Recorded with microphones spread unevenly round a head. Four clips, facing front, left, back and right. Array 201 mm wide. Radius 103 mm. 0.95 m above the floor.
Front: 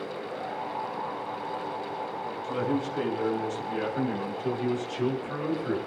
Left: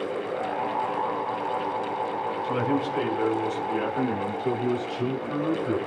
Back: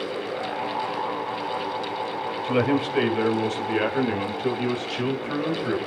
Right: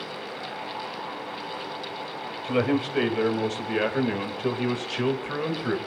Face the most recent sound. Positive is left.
turn(degrees=-110)